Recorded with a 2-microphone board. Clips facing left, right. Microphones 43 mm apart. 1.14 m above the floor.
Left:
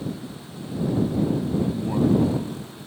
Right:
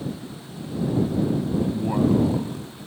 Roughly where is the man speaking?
Right.